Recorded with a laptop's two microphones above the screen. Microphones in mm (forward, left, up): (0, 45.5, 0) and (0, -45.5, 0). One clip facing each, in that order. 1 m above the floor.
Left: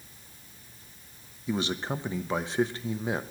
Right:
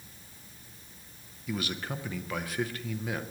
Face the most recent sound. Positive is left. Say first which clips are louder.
# left 5 dB
turn(degrees=30)  # may be behind; listen again after turning